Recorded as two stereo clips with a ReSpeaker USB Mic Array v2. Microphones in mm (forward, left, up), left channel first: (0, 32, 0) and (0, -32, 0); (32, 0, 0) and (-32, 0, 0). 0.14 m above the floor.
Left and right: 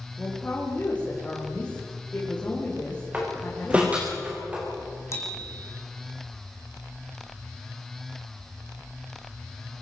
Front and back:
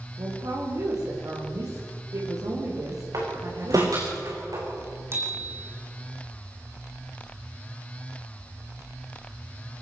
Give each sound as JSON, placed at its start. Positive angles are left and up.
{"t": 0.2, "sound": "a woman speaking", "azimuth_deg": 160, "distance_m": 7.0}
{"t": 3.1, "sound": "a door slam", "azimuth_deg": -160, "distance_m": 7.0}
{"t": 5.1, "sound": "a bicycle bell", "azimuth_deg": 130, "distance_m": 5.0}